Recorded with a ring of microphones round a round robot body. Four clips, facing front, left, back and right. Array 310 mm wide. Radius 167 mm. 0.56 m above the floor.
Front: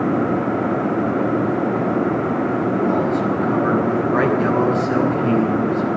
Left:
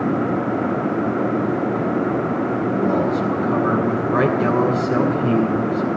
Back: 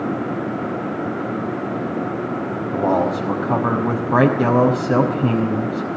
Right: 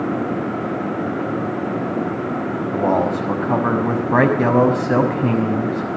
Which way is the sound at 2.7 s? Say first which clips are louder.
Right 3 dB, back 4 dB; 135° right.